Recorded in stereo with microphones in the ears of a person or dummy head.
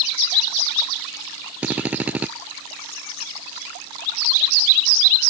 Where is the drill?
5° right (ahead or behind).